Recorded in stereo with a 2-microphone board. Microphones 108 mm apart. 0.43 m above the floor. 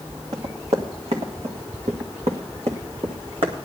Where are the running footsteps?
70° right (ahead or behind), 2.5 m; by 3.5 s 55° right (ahead or behind), 2 m.